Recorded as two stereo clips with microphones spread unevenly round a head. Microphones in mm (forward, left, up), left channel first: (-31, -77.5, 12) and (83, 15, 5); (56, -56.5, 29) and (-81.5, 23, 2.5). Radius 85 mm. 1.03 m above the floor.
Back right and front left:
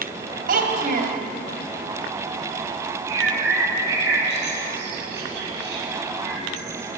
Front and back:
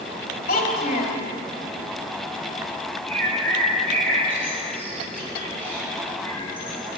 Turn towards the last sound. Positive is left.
turn(degrees=50)